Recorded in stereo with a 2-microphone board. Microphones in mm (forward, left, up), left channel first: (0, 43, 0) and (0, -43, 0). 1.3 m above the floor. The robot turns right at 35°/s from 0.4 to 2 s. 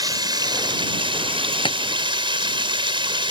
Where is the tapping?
75° left (ahead or behind); by 1.8 s 70° left (ahead or behind).